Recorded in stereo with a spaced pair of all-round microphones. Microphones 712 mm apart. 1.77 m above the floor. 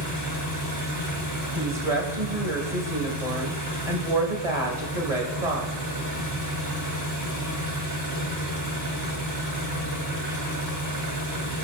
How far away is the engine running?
About 2.5 m.